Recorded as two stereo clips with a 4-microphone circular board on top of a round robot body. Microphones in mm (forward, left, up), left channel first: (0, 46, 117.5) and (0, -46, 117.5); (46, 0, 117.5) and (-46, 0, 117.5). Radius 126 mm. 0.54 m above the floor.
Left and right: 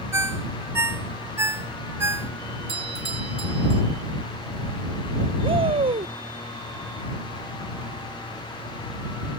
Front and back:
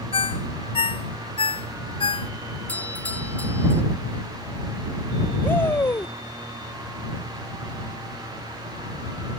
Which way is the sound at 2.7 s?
75° right.